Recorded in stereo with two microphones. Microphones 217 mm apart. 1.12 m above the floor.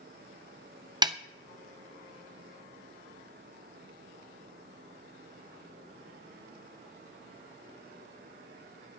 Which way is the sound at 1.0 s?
20° right (ahead or behind).